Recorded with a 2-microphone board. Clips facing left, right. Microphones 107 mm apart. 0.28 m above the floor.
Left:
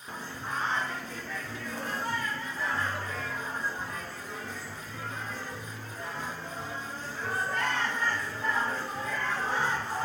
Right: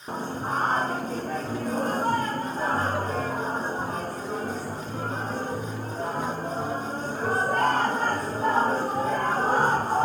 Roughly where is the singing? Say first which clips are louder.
Right 8 dB; right.